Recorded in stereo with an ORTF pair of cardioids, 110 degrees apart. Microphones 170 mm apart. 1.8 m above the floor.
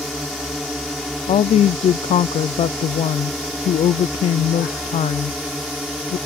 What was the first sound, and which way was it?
A drone, straight ahead.